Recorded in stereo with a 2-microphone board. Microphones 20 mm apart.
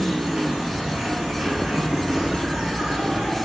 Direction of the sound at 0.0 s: 70° right (ahead or behind).